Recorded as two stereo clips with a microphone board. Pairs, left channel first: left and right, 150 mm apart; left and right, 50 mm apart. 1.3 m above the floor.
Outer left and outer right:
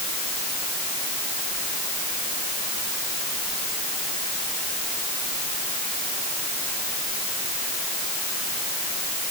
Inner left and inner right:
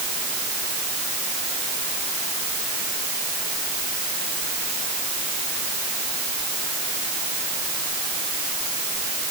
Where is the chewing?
I don't hear chewing.